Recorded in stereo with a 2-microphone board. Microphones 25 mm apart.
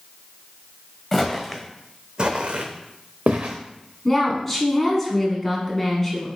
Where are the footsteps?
10° left (ahead or behind), 0.8 m; by 3.5 s 85° right, 1.0 m.